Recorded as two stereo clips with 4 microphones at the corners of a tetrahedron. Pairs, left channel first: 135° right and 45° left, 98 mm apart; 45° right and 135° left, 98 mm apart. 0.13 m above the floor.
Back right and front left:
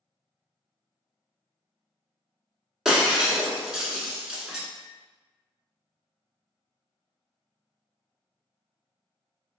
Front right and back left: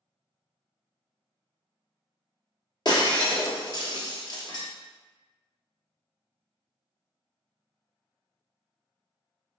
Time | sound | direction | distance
2.9 | breaking glass | 40° right | 0.9 m